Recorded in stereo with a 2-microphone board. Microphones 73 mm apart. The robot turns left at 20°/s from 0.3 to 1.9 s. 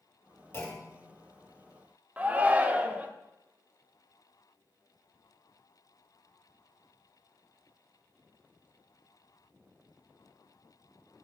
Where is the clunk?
30° left (ahead or behind), 1.8 m; by 1.1 s 45° left (ahead or behind), 1.8 m.